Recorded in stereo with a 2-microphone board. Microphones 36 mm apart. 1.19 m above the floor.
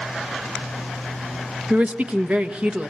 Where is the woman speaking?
40° right (ahead or behind), 1.6 m.